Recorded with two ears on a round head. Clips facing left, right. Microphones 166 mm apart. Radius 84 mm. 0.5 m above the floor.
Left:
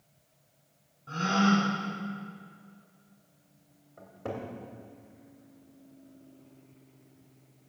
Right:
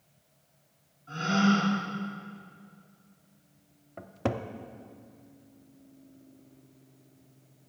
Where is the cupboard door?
80° right, 0.6 m.